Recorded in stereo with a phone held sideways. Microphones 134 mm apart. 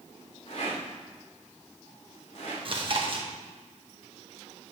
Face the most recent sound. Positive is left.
turn(degrees=-45)  # may be behind; listen again after turning